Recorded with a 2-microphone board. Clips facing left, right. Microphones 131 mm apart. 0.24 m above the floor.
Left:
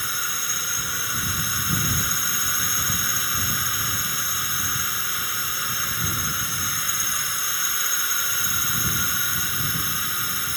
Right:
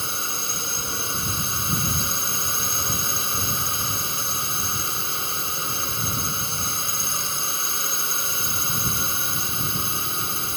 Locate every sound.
0.0 s a drone: 25° right (ahead or behind)